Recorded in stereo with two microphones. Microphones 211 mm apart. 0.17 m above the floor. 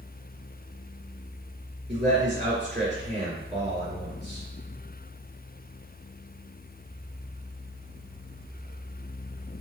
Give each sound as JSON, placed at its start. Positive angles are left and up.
{"t": 1.9, "sound": "a man speaking", "side_deg": -35, "distance_m": 1.3}